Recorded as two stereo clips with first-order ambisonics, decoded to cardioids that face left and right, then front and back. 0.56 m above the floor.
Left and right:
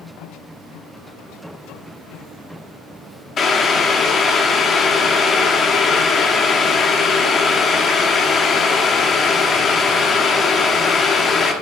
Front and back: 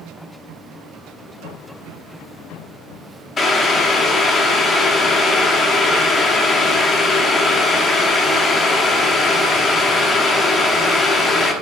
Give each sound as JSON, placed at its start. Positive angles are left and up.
{"t": 3.4, "sound": "boiling", "azimuth_deg": 50, "distance_m": 0.8}